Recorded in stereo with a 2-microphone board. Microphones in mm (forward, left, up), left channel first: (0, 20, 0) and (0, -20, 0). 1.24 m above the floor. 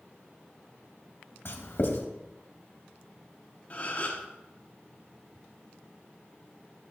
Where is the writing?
65° left (ahead or behind), 1.5 m.